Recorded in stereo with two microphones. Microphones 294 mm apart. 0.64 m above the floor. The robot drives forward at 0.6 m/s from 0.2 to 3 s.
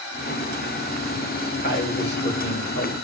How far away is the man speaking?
About 2.5 m.